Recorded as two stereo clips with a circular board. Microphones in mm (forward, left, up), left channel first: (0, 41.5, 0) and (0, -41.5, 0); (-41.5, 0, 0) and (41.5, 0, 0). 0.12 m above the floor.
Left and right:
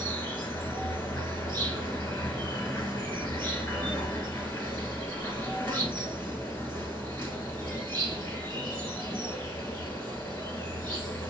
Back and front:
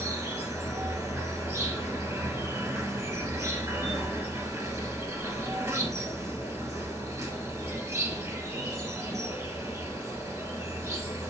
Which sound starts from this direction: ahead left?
An insect, at 0.0 s.